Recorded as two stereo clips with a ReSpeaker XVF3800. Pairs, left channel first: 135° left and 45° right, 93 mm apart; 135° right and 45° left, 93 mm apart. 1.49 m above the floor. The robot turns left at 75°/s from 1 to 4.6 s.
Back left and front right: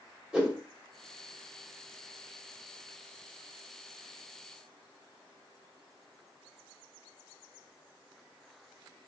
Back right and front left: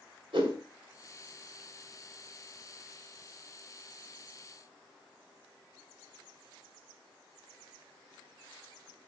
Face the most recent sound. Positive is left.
turn(degrees=130)